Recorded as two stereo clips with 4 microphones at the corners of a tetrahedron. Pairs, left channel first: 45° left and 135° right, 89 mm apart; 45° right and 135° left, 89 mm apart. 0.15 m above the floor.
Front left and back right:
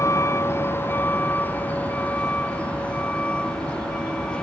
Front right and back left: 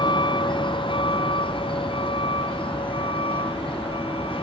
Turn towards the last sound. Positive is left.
turn(degrees=-35)